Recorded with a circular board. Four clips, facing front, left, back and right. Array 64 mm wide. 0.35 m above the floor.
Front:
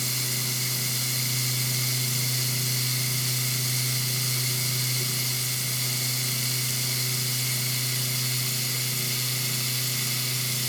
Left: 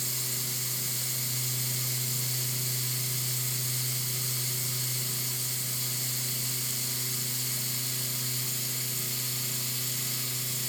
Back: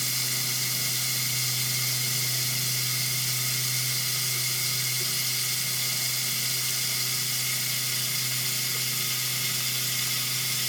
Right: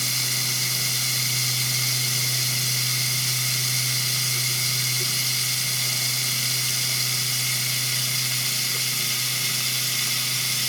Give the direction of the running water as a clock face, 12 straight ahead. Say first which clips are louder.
Right 9 dB, front 1 dB; 3 o'clock.